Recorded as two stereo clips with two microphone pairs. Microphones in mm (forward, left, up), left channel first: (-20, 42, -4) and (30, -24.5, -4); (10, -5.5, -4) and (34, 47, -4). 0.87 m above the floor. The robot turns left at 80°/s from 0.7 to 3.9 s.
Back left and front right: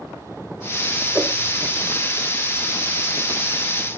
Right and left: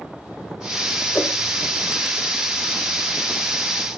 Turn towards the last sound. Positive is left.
turn(degrees=45)